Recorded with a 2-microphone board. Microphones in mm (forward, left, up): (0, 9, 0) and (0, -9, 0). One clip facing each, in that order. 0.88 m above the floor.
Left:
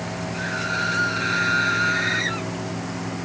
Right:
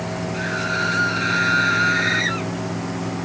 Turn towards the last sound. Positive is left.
turn(degrees=-15)  # may be behind; listen again after turning